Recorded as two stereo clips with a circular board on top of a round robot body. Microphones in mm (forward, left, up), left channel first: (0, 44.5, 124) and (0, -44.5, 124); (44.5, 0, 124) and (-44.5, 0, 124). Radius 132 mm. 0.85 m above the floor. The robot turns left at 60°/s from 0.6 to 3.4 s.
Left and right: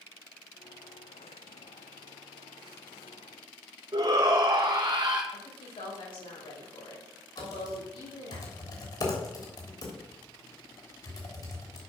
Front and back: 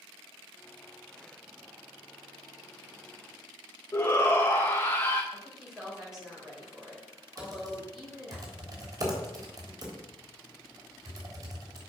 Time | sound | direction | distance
3.9 | a shout | 60° right | 1.1 m
5.3 | a woman speaking | 95° left | 5.5 m
7.4 | typing on a keyboard | 130° left | 3 m